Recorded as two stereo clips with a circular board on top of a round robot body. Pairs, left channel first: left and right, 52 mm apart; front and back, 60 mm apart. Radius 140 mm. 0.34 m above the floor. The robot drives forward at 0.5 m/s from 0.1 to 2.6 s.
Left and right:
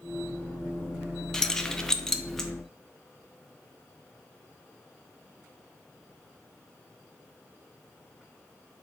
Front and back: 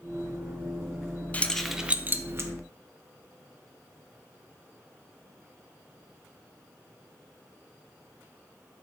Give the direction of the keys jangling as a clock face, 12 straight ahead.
11 o'clock.